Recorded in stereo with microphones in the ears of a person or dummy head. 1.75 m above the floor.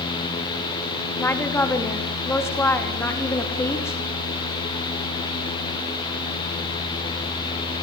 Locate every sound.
1.2 s a woman speaking: 10° left (ahead or behind), 3.5 m